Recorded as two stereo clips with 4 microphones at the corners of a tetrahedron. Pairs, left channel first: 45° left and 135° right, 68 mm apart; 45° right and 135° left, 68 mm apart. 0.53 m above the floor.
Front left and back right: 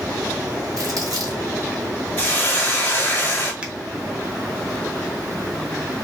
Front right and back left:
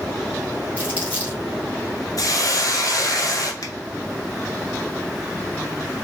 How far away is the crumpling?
About 2 m.